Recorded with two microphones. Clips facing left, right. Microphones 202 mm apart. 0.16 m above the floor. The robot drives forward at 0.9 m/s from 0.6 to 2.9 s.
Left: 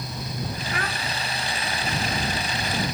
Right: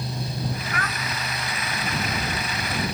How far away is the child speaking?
About 0.7 m.